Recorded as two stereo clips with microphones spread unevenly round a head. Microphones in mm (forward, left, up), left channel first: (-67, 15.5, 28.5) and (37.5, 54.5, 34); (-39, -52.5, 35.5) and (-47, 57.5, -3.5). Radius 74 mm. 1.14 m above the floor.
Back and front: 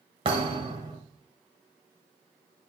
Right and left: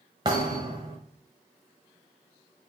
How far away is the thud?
About 1.2 m.